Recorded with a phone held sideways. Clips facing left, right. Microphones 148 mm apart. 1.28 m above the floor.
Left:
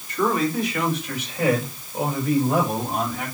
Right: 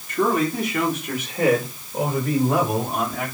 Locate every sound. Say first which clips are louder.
0.1 s a man speaking: right 1 dB; 50° right (ahead or behind), 3.5 m